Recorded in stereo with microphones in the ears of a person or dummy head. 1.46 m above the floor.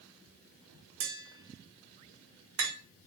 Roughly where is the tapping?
Right.